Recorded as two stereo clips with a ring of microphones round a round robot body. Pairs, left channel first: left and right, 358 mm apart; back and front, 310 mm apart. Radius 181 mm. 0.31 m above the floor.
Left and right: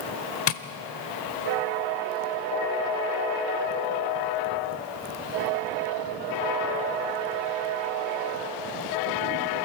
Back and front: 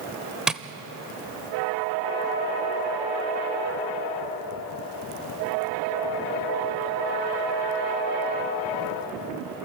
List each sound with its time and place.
0.5 s tapping: 85° left, 0.8 m